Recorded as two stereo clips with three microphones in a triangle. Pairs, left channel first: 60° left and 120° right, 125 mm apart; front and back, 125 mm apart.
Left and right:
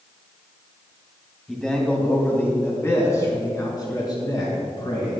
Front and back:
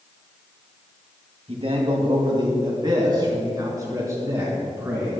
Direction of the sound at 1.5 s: 150° left.